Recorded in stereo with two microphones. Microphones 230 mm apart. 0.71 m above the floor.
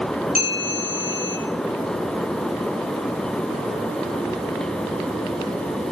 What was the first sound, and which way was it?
A bell, 35° right (ahead or behind).